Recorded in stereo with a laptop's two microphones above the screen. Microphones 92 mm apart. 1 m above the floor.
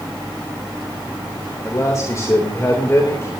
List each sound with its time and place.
1.6 s a man speaking: 35° left (ahead or behind), 3.5 m